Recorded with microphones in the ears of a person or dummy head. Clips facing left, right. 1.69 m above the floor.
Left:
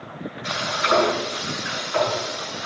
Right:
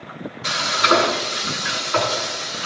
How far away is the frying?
About 7.5 m.